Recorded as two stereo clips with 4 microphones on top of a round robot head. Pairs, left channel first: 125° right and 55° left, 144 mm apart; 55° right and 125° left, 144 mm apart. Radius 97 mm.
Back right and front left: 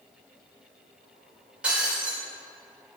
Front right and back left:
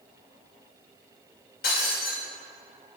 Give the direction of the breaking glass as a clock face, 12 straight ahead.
1 o'clock.